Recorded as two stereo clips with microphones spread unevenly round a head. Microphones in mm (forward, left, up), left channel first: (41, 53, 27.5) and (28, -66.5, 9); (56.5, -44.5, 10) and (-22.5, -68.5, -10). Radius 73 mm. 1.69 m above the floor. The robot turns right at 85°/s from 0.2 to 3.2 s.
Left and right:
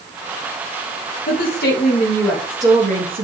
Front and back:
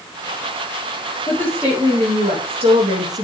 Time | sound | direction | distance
1.3 | a woman speaking | 80° left | 3 m